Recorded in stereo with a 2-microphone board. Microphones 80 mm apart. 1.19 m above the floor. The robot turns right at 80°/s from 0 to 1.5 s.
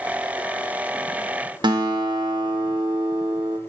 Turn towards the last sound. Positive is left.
turn(degrees=-70)  # may be behind; listen again after turning